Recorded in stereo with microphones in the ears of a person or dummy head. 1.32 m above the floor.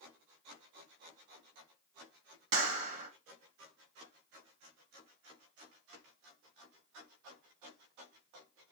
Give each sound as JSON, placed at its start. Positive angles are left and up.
{"t": 2.5, "sound": "a clap", "side_deg": -35, "distance_m": 1.4}